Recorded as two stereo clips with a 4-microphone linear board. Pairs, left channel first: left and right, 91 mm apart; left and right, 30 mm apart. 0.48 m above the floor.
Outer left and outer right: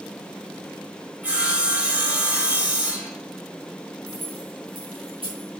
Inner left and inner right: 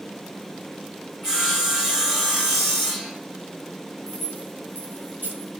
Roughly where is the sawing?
Centre.